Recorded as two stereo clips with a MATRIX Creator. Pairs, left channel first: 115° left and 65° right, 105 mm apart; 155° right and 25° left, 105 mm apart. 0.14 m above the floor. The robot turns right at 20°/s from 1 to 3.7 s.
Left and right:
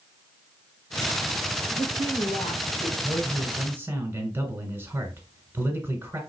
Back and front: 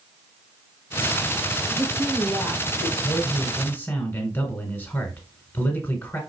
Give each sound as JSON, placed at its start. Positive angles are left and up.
{"t": 1.7, "sound": "a woman speaking", "azimuth_deg": 95, "distance_m": 4.0}
{"t": 3.0, "sound": "a man speaking", "azimuth_deg": -120, "distance_m": 1.3}